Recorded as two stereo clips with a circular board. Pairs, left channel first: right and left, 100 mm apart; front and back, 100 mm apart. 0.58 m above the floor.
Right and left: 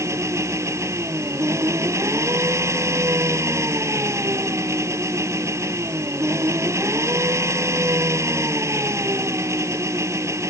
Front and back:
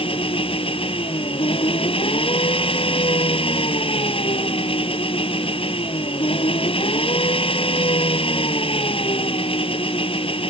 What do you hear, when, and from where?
0.0 s an engine running: 30° left